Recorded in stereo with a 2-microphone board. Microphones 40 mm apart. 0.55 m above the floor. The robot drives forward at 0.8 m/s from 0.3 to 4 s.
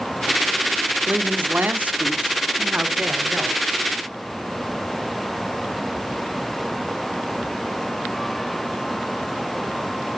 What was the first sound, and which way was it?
A man speaking, 35° right (ahead or behind).